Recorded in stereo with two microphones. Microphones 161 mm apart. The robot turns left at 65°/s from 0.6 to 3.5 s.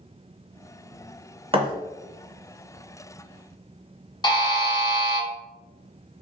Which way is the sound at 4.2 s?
25° left (ahead or behind).